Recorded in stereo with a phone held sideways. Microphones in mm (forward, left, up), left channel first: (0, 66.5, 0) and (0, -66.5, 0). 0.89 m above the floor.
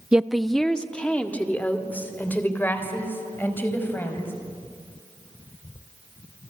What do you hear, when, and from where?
0.1 s a woman speaking: 5° right (ahead or behind), 0.7 m; by 4.3 s 15° left (ahead or behind), 5 m